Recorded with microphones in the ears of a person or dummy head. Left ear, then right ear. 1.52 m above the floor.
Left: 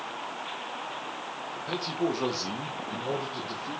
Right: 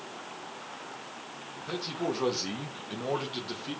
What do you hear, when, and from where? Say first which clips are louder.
1.6 s a man speaking: left 3 dB; 15° left (ahead or behind), 2 m; by 3.8 s 45° right (ahead or behind), 2 m